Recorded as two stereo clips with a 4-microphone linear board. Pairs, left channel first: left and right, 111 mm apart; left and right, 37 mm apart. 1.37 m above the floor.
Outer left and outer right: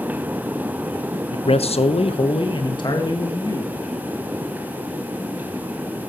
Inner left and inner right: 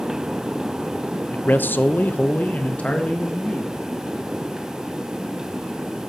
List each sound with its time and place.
1.3 s a man speaking: 50° left (ahead or behind), 0.6 m; by 3.7 s 35° left (ahead or behind), 1.9 m